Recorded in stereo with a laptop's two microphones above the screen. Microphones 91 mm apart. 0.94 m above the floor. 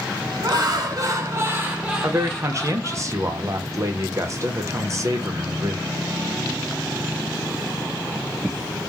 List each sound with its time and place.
0.4 s laughter: 55° right (ahead or behind), 1.3 m; by 3.0 s 30° left (ahead or behind), 1.0 m
2.0 s a man speaking: 35° right (ahead or behind), 0.7 m